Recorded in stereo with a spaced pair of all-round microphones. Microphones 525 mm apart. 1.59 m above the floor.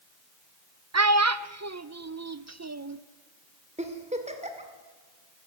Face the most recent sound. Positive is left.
turn(degrees=-10)  # may be behind; listen again after turning